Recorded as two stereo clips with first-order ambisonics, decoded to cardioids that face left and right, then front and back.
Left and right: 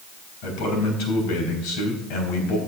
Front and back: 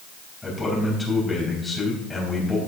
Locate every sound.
0.4 s a man speaking: 80° left, 4 m